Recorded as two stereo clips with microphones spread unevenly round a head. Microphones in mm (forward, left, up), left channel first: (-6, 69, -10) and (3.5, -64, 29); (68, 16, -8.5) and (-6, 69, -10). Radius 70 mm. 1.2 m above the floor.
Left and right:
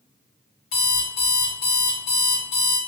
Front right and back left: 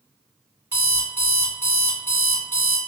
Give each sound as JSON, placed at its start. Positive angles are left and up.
{"t": 0.7, "sound": "an alarm clock", "azimuth_deg": 80, "distance_m": 1.6}